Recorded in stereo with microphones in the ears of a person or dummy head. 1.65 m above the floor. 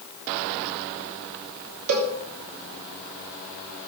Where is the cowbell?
80° right, 3 m.